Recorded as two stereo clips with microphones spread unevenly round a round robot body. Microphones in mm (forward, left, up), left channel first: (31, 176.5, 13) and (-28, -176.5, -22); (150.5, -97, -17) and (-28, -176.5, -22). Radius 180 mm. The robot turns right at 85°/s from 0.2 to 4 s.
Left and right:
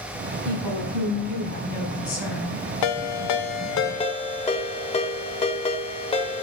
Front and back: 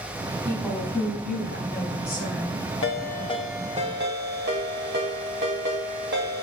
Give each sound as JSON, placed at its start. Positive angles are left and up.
{"t": 0.5, "sound": "a woman speaking", "azimuth_deg": -90, "distance_m": 3.0}
{"t": 2.8, "sound": "a ringtone", "azimuth_deg": 55, "distance_m": 0.7}